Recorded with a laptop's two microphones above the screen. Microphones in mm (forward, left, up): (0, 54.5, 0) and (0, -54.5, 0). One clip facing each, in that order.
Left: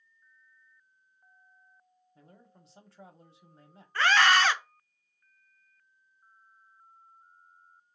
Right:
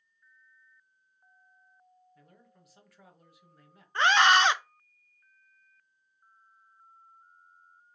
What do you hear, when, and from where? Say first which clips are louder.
2.1 s a man speaking: left 7 dB; 30° left (ahead or behind), 1.0 m
4.0 s a scream: right 1 dB; 20° right (ahead or behind), 0.6 m